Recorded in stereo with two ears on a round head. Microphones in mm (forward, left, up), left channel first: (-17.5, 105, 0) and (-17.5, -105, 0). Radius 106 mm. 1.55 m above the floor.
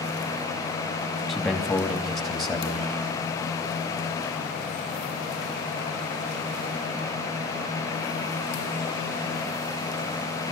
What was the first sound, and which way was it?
A man speaking, centre (ahead or behind).